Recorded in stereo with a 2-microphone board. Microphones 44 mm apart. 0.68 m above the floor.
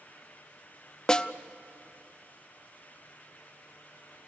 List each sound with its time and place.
1.1 s a snare drum: 20° left (ahead or behind), 0.6 m